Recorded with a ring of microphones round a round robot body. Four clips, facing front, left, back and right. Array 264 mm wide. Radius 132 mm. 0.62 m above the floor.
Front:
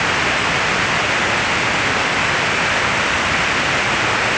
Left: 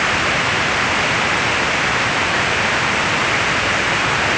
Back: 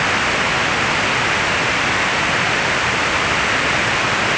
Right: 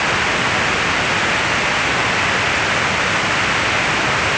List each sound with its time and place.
Only background noise.